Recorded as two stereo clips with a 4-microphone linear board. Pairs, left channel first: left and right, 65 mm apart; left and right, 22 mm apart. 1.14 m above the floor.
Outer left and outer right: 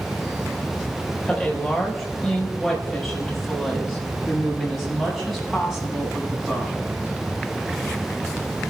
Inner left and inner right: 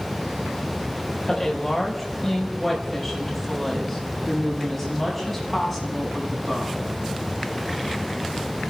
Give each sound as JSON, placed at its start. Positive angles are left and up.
{"t": 1.2, "sound": "a woman speaking", "side_deg": 10, "distance_m": 4.5}